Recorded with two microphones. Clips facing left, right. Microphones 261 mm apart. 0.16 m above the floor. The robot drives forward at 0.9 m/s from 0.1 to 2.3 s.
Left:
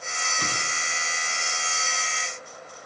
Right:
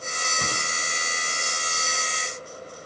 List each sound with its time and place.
0.4 s a whoosh: 50° right (ahead or behind), 4 m; by 0.7 s 55° right (ahead or behind), 4 m